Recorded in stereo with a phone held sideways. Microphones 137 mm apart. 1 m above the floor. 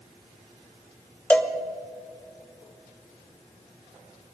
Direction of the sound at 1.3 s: 10° left (ahead or behind).